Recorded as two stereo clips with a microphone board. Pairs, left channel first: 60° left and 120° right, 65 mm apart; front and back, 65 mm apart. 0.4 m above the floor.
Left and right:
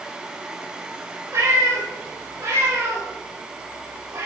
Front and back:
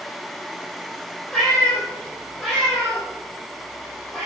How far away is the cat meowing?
About 4.5 m.